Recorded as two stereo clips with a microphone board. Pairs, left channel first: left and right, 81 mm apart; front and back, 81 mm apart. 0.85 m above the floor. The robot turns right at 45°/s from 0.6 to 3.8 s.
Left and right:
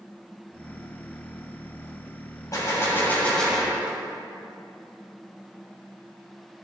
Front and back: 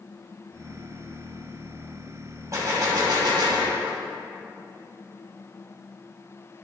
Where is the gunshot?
130° left, 2.5 m; by 4.0 s 170° right, 2.5 m.